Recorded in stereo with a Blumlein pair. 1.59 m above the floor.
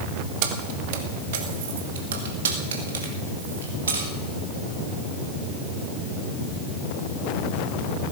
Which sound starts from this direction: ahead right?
Keys jangling, at 0.4 s.